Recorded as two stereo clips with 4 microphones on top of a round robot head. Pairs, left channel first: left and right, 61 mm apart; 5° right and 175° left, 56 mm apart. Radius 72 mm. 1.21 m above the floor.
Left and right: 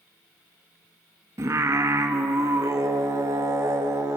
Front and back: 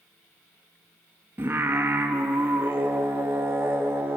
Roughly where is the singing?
Behind right.